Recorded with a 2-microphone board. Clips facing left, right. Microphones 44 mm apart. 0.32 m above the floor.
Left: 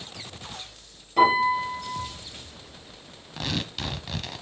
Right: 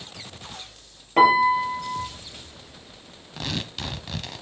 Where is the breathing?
I don't hear breathing.